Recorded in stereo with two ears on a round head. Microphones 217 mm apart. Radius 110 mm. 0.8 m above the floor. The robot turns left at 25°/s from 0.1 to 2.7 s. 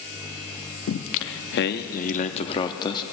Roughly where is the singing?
Ahead left.